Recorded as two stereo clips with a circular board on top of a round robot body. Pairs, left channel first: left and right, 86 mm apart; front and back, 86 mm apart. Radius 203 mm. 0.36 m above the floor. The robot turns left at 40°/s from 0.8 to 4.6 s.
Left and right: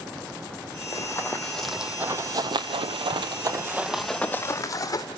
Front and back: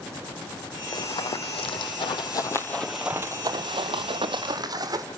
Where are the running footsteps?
40° left, 1.7 m; by 5.0 s 135° left, 1.6 m.